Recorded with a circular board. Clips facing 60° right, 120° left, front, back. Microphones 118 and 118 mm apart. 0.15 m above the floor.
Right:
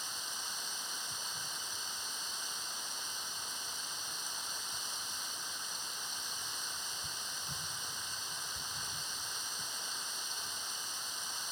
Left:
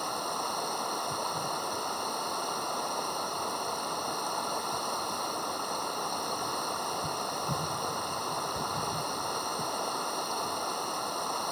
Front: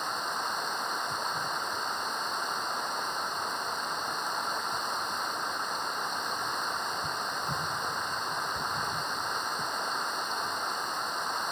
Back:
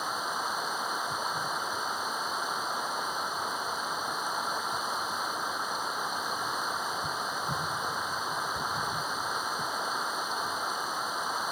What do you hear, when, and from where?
0.0 s running water: 95° left